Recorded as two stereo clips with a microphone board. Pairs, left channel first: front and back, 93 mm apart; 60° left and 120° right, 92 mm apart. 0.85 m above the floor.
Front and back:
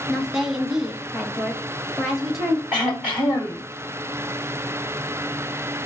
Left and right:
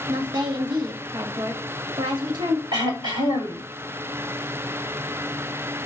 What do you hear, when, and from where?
0.1 s a woman speaking: 95° right, 1.1 m
2.7 s throat clearing: 105° right, 3 m